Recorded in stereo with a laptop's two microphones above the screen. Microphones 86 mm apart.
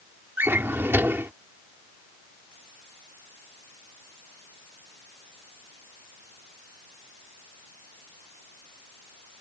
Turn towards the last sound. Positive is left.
turn(degrees=-25)  # may be behind; listen again after turning